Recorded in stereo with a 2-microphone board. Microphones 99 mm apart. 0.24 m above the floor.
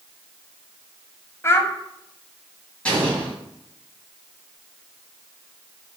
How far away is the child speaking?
About 0.6 m.